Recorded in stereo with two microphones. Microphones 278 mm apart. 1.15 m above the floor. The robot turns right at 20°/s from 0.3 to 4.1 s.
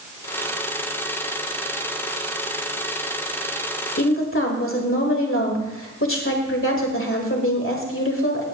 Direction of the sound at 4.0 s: 50° left (ahead or behind).